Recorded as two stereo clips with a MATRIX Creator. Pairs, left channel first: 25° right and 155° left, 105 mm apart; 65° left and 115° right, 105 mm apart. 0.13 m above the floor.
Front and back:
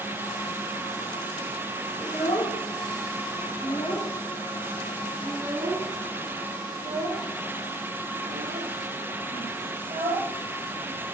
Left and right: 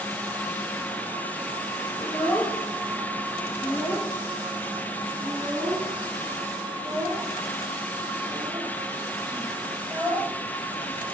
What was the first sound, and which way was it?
A child speaking, 15° right.